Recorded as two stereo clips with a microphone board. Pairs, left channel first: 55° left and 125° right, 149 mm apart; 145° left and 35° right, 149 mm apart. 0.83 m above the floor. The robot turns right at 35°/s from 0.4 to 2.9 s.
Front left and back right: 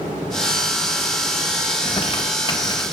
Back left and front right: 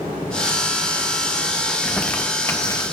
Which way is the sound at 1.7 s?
55° left.